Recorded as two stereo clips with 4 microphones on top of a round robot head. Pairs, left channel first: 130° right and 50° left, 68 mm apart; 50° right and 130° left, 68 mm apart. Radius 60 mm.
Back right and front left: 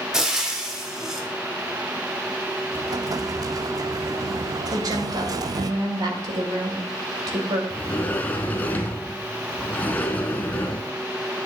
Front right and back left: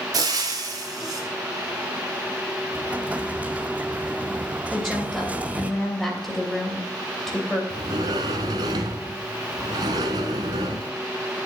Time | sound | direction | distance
0.1 | frying | 130° left | 1.8 m
2.7 | an explosion | 65° left | 0.5 m
4.7 | a woman speaking | 35° left | 3 m
7.7 | a sliding door | 160° left | 0.9 m